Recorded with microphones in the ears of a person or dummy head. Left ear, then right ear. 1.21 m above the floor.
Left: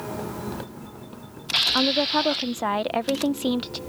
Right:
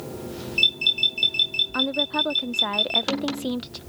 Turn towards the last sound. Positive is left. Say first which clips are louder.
# left 2 dB
turn(degrees=10)  # may be behind; listen again after turning